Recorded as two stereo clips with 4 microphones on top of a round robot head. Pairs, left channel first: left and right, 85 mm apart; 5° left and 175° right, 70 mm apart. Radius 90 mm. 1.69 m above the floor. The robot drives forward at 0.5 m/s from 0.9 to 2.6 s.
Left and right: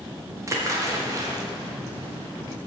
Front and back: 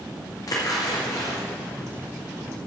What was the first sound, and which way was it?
A splash, 35° right.